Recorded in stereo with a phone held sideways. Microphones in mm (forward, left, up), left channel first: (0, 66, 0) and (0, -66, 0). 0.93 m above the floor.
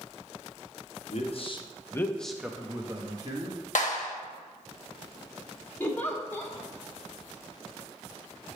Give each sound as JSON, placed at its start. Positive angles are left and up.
{"t": 1.1, "sound": "a man speaking", "side_deg": 55, "distance_m": 1.0}
{"t": 3.8, "sound": "a clap", "side_deg": 75, "distance_m": 1.1}
{"t": 5.8, "sound": "a giggle", "side_deg": 15, "distance_m": 1.2}